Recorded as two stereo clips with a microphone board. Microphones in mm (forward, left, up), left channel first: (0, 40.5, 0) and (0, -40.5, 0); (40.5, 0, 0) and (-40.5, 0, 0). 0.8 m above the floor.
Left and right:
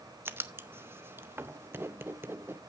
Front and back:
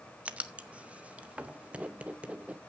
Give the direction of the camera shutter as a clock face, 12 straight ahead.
I don't hear a camera shutter.